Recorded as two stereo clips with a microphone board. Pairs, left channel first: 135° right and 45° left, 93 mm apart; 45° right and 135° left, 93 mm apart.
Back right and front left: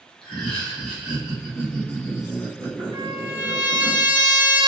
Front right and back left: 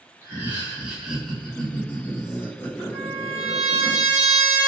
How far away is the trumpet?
About 2.0 m.